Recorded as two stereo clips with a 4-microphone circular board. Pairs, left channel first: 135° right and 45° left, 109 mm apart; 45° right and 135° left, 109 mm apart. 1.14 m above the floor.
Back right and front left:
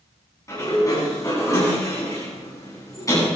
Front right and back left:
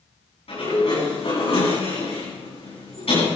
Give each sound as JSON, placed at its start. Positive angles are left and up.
{"t": 0.5, "sound": "a sliding door", "azimuth_deg": -75, "distance_m": 9.5}